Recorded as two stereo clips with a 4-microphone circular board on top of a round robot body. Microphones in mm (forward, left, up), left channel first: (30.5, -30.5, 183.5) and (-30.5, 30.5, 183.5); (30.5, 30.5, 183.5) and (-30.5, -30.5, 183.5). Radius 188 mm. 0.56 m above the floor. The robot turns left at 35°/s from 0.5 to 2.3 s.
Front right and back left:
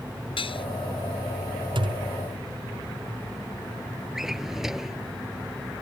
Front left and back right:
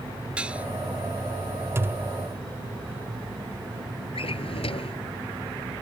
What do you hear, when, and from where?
0.4 s dishes clattering: 55° right; by 0.7 s 60° right
1.8 s a thud: 165° left; by 2.1 s 150° left
4.2 s a drawer: 50° left